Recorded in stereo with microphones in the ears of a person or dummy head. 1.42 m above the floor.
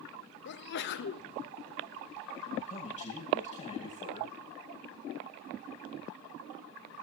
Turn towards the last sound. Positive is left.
turn(degrees=35)  # may be behind; listen again after turning